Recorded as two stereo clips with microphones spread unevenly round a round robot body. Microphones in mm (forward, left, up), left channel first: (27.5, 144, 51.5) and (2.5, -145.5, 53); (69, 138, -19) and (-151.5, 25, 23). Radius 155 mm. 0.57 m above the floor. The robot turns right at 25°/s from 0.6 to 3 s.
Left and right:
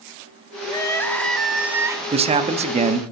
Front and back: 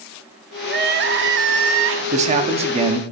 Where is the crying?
155° left, 0.8 m; by 2.0 s 170° right, 0.8 m.